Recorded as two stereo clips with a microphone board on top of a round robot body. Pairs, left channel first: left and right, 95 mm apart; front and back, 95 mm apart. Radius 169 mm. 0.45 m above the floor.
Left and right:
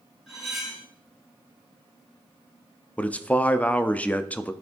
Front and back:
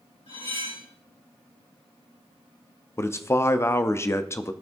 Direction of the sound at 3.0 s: 25° left.